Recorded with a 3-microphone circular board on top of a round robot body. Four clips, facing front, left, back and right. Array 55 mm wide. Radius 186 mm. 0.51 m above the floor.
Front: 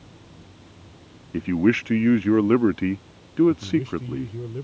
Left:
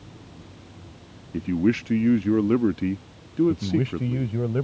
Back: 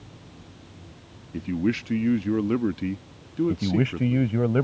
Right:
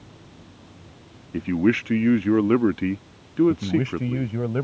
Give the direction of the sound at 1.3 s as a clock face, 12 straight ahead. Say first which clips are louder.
Right 2 dB, front 6 dB; 1 o'clock.